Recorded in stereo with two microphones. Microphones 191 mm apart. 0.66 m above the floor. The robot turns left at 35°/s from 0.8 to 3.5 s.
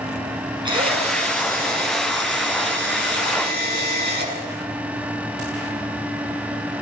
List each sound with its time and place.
0.7 s a drill: 25° right, 7.5 m; by 4.3 s 120° right, 7.5 m